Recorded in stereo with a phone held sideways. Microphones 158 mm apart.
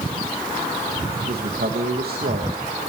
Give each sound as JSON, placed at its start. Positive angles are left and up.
{"t": 1.3, "sound": "a man speaking", "side_deg": -80, "distance_m": 2.5}